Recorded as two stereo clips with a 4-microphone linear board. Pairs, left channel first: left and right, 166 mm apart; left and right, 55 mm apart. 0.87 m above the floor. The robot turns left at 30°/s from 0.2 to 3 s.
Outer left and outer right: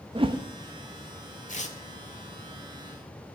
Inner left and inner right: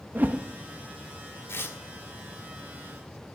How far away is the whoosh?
About 0.7 m.